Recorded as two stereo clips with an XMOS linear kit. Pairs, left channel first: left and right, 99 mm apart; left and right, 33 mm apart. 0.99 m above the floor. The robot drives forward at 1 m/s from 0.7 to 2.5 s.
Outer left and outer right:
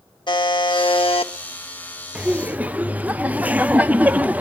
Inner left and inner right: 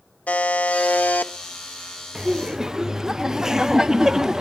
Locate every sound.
0.3 s a buzzer: 50° left (ahead or behind), 1.1 m; by 1.3 s 70° left (ahead or behind), 0.9 m
2.1 s laughter: 10° right (ahead or behind), 0.9 m; by 4.4 s 15° right (ahead or behind), 0.6 m